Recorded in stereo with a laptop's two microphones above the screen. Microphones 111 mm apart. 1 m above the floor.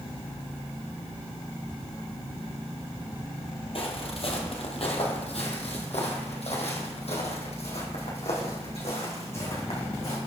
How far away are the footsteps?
About 1.9 m.